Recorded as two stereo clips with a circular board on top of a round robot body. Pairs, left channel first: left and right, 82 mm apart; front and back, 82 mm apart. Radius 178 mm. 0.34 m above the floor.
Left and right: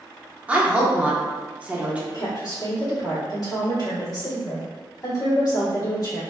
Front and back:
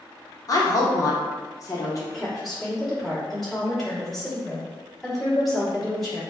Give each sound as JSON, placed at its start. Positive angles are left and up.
{"t": 0.5, "sound": "a woman speaking", "azimuth_deg": -25, "distance_m": 1.1}
{"t": 2.1, "sound": "a woman speaking", "azimuth_deg": 85, "distance_m": 1.8}